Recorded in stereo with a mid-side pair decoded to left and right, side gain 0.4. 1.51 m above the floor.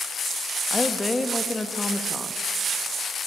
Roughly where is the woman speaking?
Ahead.